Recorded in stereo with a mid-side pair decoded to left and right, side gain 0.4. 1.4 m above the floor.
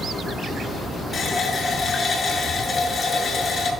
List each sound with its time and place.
1.1 s a running tap: 45° left, 6.5 m